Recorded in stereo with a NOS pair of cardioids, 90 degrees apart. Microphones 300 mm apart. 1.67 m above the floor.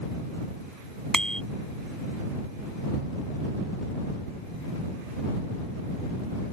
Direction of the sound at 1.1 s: Straight ahead.